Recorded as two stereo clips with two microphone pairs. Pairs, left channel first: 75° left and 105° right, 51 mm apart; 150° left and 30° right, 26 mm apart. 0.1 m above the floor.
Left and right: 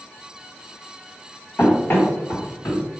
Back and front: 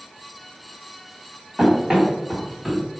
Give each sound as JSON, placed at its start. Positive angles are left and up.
{"t": 1.6, "sound": "running footsteps", "azimuth_deg": 30, "distance_m": 1.6}